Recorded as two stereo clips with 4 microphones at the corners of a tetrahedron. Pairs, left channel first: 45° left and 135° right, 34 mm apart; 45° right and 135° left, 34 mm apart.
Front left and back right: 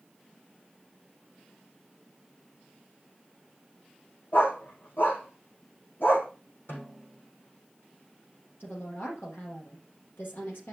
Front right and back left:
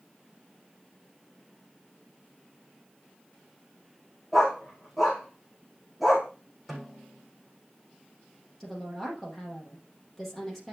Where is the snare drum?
45° left, 5.5 m.